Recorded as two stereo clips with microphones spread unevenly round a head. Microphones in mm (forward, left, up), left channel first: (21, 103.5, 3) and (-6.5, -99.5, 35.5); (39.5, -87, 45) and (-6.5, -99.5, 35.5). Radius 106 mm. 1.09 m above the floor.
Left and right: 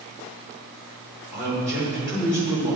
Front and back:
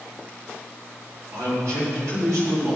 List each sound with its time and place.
1.3 s a man speaking: 175° right, 4 m